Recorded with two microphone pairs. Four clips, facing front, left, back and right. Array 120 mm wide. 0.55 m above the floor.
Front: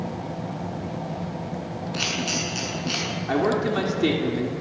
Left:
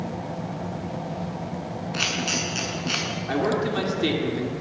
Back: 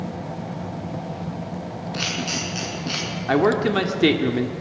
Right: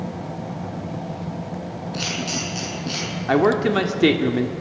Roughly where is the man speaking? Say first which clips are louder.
Right 7 dB, back 4 dB; behind right.